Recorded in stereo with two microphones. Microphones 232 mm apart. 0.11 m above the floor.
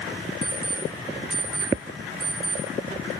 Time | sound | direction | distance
0.4 | an alarm clock | 65° right (ahead or behind) | 2 m